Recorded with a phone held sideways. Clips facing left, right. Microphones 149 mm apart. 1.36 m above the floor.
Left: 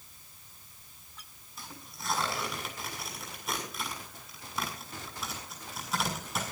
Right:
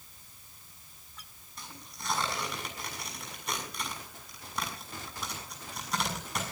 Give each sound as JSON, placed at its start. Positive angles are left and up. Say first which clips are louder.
{"t": 1.6, "sound": "tearing paper", "louder": "left 1 dB", "side_deg": 0, "distance_m": 6.5}